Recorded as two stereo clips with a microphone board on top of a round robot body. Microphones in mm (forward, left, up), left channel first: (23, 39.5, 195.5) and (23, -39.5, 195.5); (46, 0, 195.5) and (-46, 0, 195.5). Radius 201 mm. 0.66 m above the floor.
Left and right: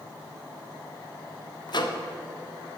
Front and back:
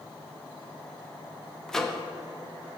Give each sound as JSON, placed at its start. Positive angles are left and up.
{"t": 1.7, "sound": "a microwave", "azimuth_deg": 85, "distance_m": 1.1}